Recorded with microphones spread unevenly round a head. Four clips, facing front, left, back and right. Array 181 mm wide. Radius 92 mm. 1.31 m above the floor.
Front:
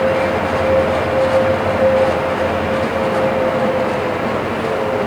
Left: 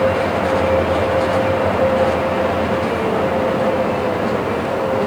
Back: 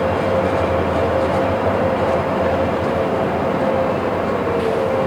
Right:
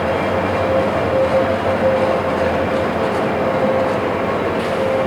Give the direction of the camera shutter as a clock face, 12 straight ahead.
I don't hear a camera shutter.